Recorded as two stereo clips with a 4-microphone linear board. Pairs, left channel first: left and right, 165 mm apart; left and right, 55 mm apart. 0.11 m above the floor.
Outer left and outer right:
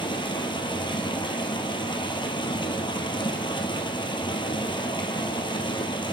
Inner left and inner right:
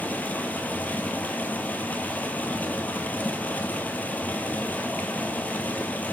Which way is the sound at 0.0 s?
30° left (ahead or behind).